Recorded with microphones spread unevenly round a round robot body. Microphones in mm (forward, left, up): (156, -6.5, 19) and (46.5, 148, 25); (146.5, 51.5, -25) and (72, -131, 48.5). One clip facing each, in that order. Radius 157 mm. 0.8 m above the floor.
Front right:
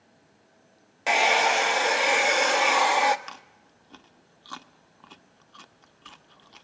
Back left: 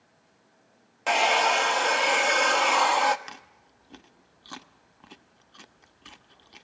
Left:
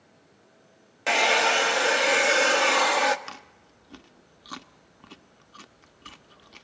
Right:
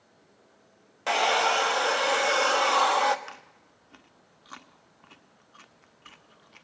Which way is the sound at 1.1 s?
25° left.